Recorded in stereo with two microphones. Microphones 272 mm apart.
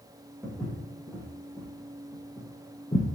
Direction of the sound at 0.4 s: 5° right (ahead or behind).